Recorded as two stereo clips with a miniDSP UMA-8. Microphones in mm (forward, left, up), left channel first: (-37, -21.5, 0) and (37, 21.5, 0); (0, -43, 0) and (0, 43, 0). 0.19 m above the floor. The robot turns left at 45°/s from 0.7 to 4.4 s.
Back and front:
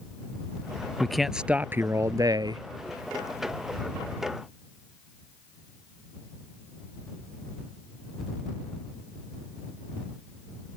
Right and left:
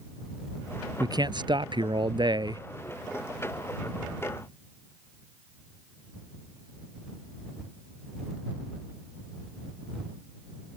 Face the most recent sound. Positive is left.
turn(degrees=-25)